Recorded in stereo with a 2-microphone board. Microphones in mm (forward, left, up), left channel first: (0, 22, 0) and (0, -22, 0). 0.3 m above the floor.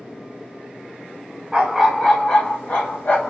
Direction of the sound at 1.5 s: 15° right (ahead or behind).